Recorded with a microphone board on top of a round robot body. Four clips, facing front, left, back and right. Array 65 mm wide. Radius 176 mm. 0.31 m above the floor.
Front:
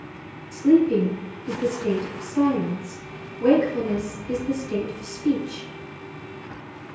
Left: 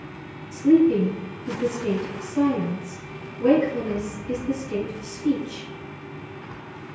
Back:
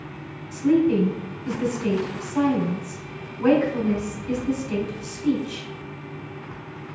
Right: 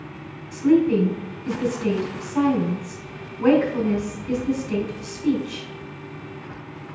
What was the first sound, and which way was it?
A woman speaking, 125° right.